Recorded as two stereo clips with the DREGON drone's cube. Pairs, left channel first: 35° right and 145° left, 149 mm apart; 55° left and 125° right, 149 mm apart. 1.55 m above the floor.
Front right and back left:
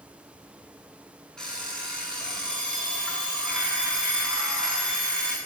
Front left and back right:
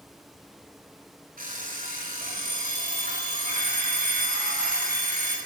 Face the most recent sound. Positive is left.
turn(degrees=-120)